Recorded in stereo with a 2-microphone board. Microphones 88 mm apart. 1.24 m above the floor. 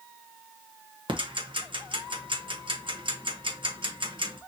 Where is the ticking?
70° right (ahead or behind), 1.0 m.